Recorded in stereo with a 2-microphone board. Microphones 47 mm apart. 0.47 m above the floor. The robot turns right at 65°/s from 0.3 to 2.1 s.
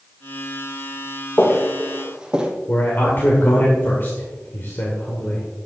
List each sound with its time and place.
1.4 s footsteps: 40° left (ahead or behind), 2 m; by 2.5 s 20° right (ahead or behind), 1.2 m
2.7 s a man speaking: 45° left (ahead or behind), 1.6 m